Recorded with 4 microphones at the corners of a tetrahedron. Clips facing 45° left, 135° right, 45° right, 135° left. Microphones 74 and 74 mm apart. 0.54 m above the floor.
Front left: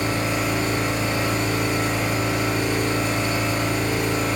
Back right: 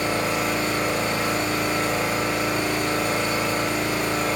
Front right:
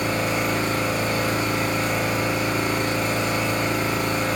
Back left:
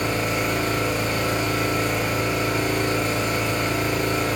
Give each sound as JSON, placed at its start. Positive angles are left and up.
{"t": 0.0, "sound": "an engine running", "azimuth_deg": -100, "distance_m": 1.7}